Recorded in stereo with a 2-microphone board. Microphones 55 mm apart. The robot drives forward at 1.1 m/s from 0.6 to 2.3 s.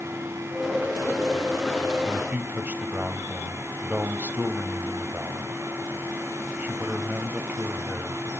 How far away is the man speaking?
About 1.4 m.